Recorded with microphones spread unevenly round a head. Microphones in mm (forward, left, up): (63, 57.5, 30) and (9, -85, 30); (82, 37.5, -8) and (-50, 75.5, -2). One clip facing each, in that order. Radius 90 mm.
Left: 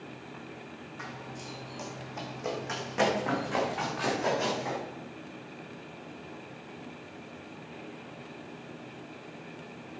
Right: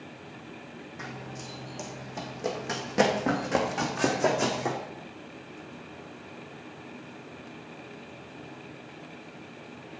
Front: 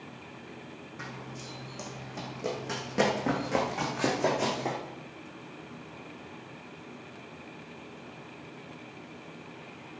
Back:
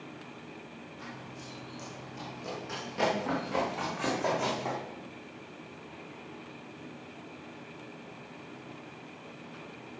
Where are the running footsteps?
40° right, 3 m; by 4.8 s 85° right, 3 m.